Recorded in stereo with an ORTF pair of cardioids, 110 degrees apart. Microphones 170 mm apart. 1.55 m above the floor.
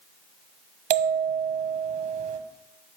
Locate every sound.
0.9 s a bell: 45° right, 1.0 m